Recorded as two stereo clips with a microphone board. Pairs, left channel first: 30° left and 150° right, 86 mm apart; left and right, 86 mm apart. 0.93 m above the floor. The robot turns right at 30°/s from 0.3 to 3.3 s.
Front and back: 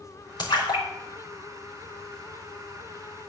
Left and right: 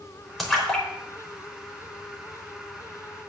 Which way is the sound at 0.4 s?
Straight ahead.